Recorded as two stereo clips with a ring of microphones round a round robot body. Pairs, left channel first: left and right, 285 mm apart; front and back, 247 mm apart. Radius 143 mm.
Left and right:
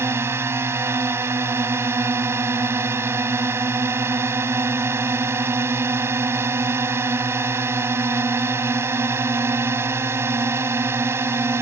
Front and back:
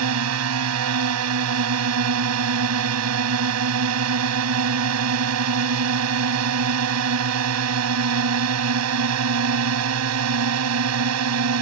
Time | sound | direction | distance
0.0 | a drone | 170° right | ?